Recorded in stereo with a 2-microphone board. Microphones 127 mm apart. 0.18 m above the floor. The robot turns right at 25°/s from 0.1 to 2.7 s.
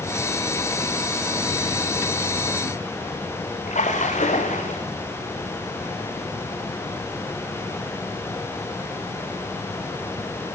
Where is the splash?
70° left (ahead or behind), 3 m.